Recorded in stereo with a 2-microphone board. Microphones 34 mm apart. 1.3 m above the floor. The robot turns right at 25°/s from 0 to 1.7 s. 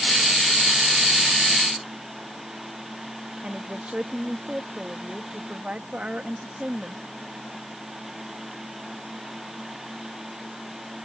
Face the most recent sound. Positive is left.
turn(degrees=-35)  # may be behind; listen again after turning